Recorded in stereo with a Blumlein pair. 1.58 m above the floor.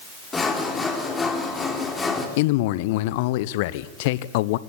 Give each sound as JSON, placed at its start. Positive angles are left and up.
{"t": 0.3, "sound": "sawing", "azimuth_deg": 15, "distance_m": 3.5}
{"t": 2.4, "sound": "a man speaking", "azimuth_deg": 50, "distance_m": 0.9}